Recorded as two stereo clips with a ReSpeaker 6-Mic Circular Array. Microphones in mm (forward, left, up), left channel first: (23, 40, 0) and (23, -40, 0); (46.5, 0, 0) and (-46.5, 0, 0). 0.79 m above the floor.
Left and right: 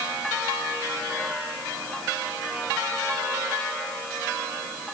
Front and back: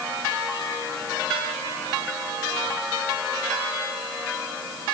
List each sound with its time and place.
Only background noise.